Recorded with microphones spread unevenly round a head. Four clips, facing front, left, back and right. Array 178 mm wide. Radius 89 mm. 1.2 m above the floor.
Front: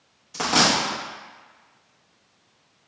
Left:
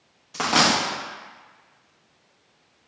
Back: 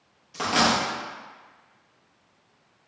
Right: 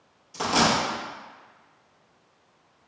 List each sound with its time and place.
0.3 s a dropped coin: 85° left, 0.6 m